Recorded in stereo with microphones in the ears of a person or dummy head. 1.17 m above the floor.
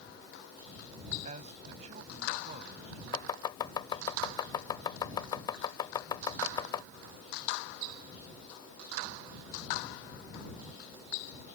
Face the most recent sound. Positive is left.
turn(degrees=25)  # may be behind; listen again after turning